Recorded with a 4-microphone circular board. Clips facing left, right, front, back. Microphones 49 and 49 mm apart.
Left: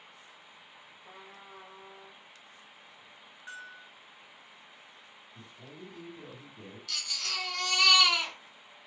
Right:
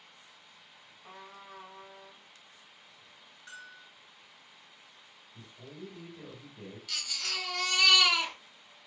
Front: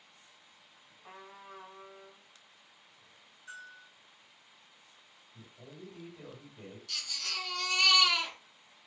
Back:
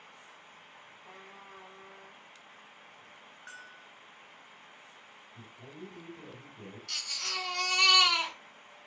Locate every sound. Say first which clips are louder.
1.0 s a trumpet: right 3 dB, front 3 dB; 50° right, 0.8 m
3.5 s a bell: left 3 dB, front 2 dB; 165° left, 0.8 m
5.3 s a man speaking: right 2 dB, back 2 dB; 10° right, 1.4 m
6.9 s a baby crying: even, back 2 dB; 165° right, 1.3 m